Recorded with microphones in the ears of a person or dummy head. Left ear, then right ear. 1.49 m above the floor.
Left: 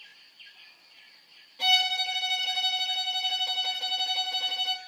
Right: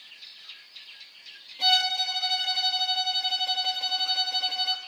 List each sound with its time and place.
1.6 s a violin: 5° left (ahead or behind), 2.5 m